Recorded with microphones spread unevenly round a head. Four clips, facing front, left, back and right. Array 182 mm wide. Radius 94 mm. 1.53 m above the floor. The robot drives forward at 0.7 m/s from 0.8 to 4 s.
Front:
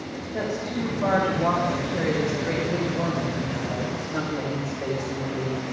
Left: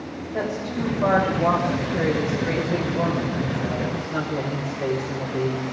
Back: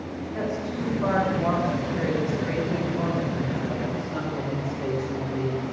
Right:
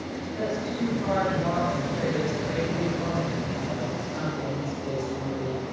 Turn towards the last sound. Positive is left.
turn(degrees=85)